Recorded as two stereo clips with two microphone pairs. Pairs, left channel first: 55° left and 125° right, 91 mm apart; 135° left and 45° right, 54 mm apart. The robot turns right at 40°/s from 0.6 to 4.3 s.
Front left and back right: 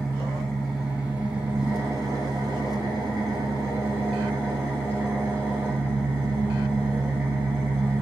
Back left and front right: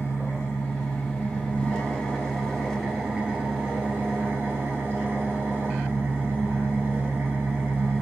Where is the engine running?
145° left, 1.3 m; by 8.0 s 65° right, 1.3 m.